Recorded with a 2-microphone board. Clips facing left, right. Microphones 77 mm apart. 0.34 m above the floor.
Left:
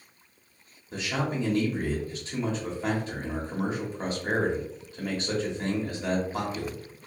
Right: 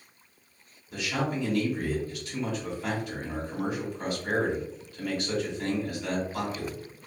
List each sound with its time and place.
0.9 s a man speaking: 30° left (ahead or behind), 1.1 m